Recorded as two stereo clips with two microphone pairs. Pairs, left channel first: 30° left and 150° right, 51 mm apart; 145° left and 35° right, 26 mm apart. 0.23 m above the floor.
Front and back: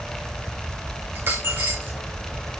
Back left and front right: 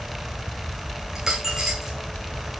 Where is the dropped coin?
105° right, 3 m.